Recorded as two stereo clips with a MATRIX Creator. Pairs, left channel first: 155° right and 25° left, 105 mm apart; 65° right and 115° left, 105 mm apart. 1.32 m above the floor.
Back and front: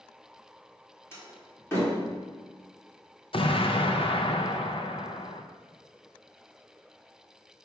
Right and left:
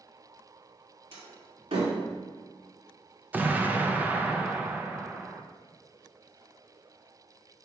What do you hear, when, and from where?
1.1 s a door slam: 135° left, 2.5 m
3.3 s an explosion: 175° right, 0.6 m